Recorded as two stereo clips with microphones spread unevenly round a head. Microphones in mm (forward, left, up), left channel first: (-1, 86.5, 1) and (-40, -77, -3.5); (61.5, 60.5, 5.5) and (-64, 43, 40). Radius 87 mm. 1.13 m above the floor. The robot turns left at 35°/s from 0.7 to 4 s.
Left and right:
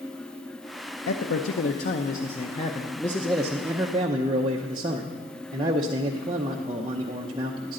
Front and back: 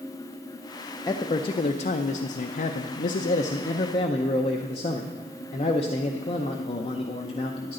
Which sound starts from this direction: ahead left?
A man speaking, at 1.1 s.